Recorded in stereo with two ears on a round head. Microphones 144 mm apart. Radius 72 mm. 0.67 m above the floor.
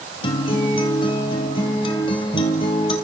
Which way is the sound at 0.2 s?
30° left (ahead or behind).